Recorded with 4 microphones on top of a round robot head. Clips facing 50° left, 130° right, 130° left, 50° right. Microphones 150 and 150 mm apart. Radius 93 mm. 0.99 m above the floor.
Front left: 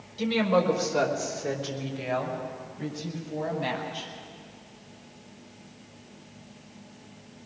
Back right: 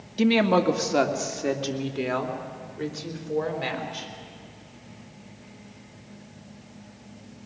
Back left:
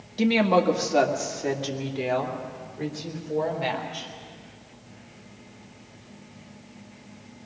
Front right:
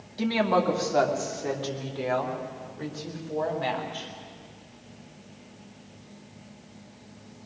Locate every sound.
0.2 s a woman speaking: 160° right, 1.6 m; by 4.1 s 155° right, 4 m